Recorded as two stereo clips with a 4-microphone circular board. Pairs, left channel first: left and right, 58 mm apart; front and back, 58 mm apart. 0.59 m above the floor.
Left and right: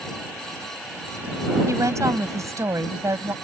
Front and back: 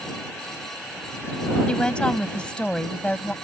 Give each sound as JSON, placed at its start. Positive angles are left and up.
{"t": 1.7, "sound": "a woman speaking", "azimuth_deg": -70}